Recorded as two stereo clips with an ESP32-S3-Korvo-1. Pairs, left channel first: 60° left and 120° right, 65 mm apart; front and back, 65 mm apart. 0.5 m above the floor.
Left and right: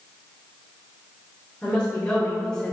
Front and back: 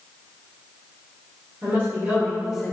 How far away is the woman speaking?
About 1.8 m.